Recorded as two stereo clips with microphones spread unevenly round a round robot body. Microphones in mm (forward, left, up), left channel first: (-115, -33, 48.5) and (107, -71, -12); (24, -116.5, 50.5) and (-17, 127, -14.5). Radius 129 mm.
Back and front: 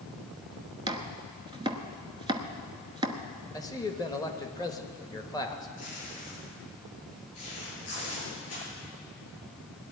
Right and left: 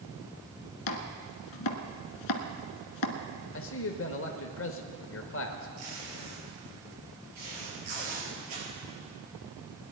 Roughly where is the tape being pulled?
Left.